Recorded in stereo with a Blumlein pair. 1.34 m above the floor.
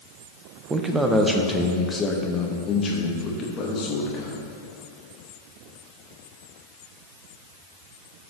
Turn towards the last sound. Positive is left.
turn(degrees=30)